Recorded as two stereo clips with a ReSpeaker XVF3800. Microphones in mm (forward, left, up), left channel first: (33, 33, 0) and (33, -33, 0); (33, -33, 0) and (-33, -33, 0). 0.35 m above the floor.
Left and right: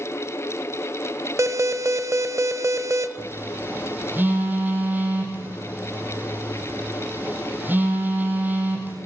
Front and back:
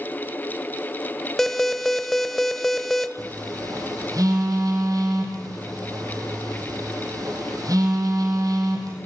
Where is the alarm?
85° right, 1.1 m.